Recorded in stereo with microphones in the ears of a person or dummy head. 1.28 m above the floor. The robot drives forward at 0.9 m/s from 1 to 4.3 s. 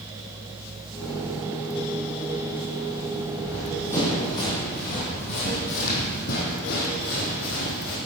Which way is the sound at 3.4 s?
10° left (ahead or behind).